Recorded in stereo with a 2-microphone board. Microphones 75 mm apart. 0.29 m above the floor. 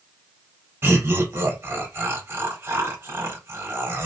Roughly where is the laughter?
Right.